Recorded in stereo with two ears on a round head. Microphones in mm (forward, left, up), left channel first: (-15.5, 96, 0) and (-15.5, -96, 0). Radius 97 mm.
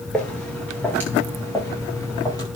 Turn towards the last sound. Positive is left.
turn(degrees=15)  # may be behind; listen again after turning